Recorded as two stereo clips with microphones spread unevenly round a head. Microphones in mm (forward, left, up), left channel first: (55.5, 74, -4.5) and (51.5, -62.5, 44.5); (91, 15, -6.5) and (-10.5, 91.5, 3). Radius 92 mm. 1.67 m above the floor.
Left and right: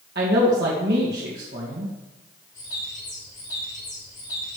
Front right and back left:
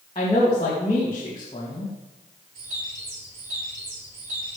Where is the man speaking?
105° right, 2.5 m.